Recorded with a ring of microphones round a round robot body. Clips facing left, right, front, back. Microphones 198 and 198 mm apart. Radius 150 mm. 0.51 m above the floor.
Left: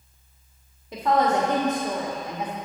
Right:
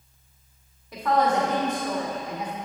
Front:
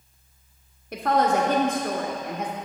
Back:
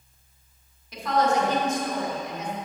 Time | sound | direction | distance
0.9 | a woman speaking | 20° left | 1.5 m